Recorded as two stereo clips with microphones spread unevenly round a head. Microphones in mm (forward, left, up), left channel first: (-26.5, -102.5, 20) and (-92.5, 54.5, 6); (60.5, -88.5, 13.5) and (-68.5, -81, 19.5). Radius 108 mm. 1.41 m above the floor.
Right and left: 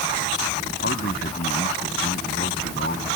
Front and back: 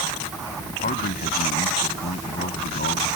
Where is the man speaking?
20° right; by 3.1 s 10° right.